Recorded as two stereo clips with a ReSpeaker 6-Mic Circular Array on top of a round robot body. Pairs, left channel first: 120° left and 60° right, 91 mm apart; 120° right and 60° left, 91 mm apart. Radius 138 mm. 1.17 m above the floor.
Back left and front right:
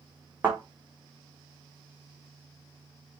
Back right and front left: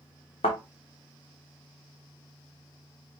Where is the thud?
130° right, 1.0 m.